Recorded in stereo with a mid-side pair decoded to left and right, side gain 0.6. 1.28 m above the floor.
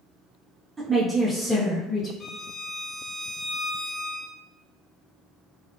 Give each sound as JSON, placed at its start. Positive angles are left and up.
{"t": 0.8, "sound": "a woman speaking", "azimuth_deg": -30, "distance_m": 1.2}
{"t": 2.2, "sound": "a violin", "azimuth_deg": 30, "distance_m": 0.5}